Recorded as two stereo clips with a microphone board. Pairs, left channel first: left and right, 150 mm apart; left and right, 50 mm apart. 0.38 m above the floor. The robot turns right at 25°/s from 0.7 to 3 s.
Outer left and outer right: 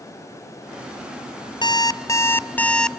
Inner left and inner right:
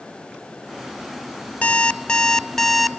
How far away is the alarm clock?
About 0.5 m.